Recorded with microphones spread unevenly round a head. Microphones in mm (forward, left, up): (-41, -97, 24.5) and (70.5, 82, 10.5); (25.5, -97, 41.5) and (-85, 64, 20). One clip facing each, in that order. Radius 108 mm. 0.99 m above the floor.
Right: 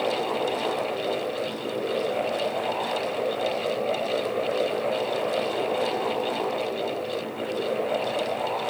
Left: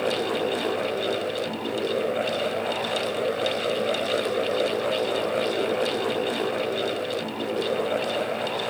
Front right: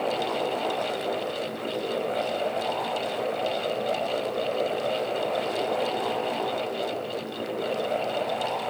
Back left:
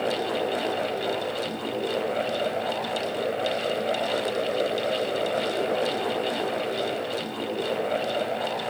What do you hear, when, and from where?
Only background noise.